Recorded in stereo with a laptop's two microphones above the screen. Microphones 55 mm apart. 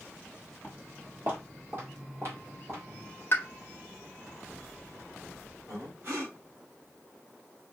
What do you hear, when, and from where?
0.6 s footsteps: 25° right (ahead or behind), 1.4 m; by 3.1 s 50° right (ahead or behind), 3 m
3.3 s a pop: 45° left (ahead or behind), 0.7 m
5.7 s breathing: 50° right (ahead or behind), 2.5 m